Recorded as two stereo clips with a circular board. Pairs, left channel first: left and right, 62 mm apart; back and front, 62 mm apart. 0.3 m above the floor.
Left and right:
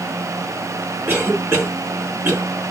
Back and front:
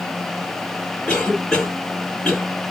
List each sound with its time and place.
1.1 s a cough: 110° right, 1.7 m